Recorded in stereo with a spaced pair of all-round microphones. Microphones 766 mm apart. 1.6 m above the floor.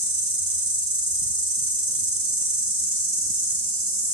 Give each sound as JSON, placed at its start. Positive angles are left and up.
{"t": 0.0, "sound": "an insect", "side_deg": -25, "distance_m": 0.9}